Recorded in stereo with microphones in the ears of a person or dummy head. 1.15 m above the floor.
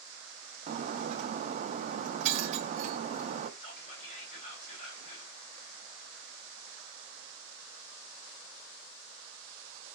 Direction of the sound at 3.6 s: 40° left (ahead or behind).